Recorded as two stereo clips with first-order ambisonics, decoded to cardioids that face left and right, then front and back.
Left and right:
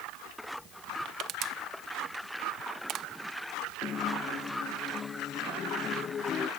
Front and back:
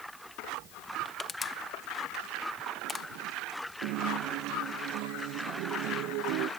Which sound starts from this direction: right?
Crushing, at 1.1 s.